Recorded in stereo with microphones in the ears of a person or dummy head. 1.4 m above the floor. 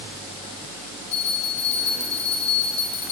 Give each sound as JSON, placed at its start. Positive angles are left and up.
{"t": 1.1, "sound": "a bell", "side_deg": 35, "distance_m": 1.1}